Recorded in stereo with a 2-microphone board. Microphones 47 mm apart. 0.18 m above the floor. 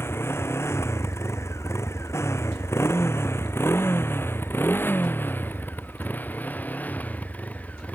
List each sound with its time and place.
0.0 s a motorcycle: 65° left (ahead or behind); by 8.0 s 30° left (ahead or behind)